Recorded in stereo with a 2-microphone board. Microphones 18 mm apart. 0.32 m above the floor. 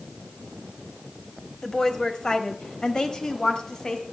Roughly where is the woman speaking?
Left.